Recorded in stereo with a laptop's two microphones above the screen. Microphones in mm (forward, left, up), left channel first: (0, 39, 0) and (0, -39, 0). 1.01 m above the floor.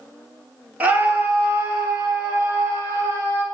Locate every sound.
0.8 s a scream: 20° right (ahead or behind), 1.2 m; by 3.4 s 40° right (ahead or behind), 4 m